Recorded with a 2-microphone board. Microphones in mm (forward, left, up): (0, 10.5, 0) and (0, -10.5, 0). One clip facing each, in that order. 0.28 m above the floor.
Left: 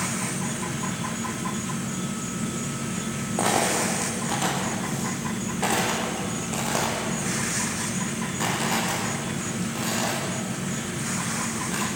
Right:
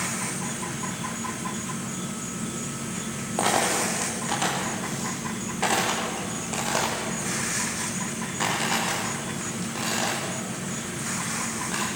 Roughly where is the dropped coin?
Centre.